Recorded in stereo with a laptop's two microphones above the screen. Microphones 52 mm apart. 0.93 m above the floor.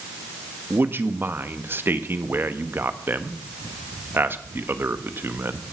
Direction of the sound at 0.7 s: 45° right (ahead or behind).